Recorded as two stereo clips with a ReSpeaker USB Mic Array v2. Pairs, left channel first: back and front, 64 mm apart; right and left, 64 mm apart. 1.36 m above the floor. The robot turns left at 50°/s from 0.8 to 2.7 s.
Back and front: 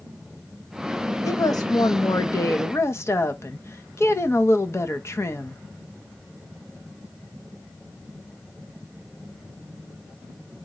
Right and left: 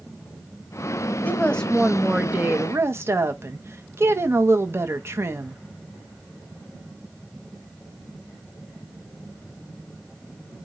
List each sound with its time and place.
1.2 s a woman speaking: 150° right, 0.9 m; by 5.6 s 135° left, 0.9 m